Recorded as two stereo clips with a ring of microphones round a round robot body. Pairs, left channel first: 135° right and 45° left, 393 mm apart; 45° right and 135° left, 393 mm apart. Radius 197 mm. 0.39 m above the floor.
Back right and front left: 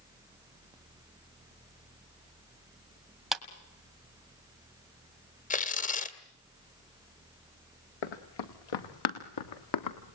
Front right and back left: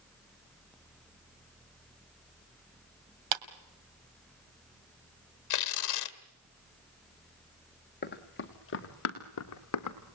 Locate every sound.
3.3 s a clap: 135° left, 2 m
5.5 s tearing paper: 70° right, 2 m
8.0 s running footsteps: 110° right, 3.5 m; by 10.0 s 90° right, 3 m